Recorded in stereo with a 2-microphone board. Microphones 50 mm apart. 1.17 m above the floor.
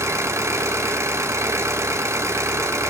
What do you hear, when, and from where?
0.0 s an engine running: 75° right (ahead or behind), 3.5 m